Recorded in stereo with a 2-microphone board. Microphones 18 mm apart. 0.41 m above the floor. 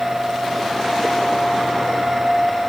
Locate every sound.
Only background noise.